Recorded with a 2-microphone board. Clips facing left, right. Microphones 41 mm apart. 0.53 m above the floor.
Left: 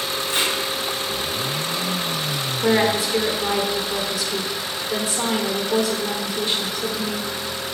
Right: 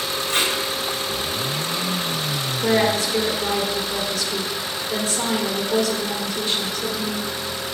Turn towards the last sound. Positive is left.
turn(degrees=20)  # may be behind; listen again after turning